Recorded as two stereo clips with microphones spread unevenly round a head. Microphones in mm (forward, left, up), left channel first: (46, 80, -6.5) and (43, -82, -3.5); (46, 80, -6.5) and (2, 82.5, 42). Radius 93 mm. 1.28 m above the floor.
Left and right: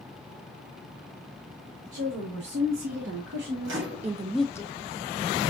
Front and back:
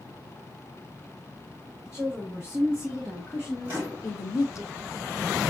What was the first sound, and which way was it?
A woman speaking, 100° right.